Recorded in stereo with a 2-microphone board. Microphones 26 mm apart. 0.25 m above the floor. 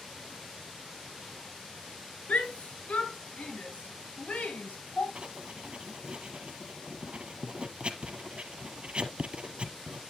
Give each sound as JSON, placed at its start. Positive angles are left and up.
{"t": 2.3, "sound": "a shout", "side_deg": 70, "distance_m": 3.5}
{"t": 5.2, "sound": "writing", "side_deg": -50, "distance_m": 1.2}